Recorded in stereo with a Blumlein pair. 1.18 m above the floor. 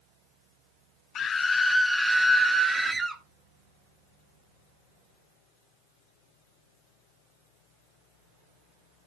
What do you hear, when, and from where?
1.1 s a scream: 30° left, 0.5 m; by 3.2 s 15° right, 1.6 m